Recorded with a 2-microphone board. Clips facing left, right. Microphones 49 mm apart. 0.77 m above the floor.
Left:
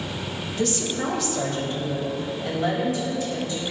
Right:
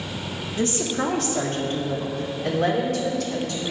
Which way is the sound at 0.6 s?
30° right (ahead or behind).